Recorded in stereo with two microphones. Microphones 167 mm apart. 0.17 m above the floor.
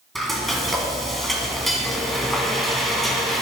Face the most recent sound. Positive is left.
turn(degrees=0)  # may be behind; listen again after turning